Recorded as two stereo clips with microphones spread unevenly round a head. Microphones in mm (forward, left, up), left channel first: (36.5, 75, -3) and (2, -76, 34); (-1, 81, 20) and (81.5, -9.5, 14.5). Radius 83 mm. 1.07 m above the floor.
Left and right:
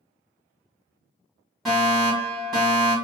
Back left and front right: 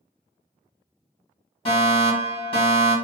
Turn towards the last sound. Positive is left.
turn(degrees=150)